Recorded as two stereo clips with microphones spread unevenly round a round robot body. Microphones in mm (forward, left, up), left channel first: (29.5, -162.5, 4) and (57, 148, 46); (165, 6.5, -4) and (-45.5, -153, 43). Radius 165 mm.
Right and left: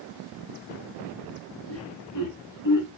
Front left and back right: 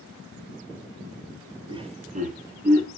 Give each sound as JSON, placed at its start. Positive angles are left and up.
{"t": 1.7, "sound": "laughter", "azimuth_deg": -65, "distance_m": 1.2}